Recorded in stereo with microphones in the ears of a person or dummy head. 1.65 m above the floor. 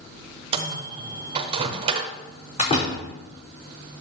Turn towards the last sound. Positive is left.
turn(degrees=35)  # may be behind; listen again after turning